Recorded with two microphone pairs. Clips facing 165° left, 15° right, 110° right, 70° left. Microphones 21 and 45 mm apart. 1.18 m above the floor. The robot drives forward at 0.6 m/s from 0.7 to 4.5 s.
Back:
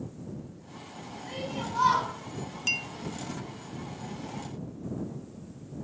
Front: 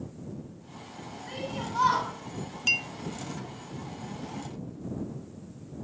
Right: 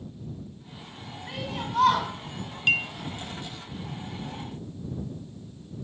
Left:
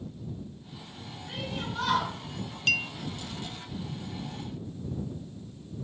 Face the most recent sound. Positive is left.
turn(degrees=-170)